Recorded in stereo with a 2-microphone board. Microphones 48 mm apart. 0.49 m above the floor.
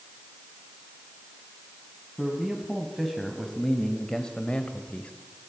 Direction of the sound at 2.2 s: Centre (ahead or behind).